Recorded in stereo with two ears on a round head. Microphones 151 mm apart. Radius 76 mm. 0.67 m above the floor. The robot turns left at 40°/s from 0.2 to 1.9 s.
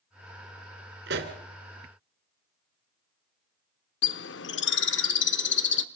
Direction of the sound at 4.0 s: 75° left (ahead or behind).